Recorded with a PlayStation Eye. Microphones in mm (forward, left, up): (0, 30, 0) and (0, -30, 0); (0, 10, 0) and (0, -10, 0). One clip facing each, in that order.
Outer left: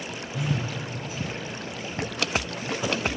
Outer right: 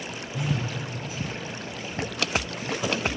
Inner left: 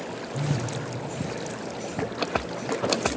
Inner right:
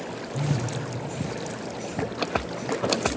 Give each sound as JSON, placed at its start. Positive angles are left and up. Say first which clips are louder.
{"t": 0.3, "sound": "a phone buzzing", "louder": "even, inner right 1 dB", "side_deg": 0, "distance_m": 1.7}